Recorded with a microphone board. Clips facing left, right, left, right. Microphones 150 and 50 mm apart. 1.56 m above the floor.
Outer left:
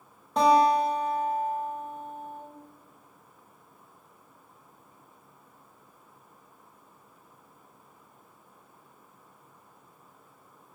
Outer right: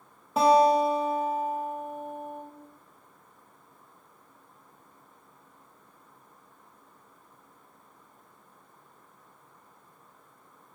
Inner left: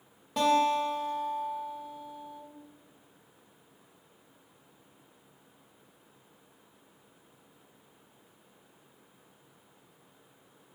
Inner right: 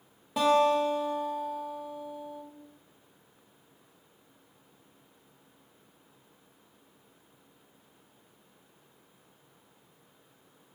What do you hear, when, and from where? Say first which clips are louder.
0.4 s a guitar: outer right 1 dB, inner right 2 dB; 5° right (ahead or behind), 0.9 m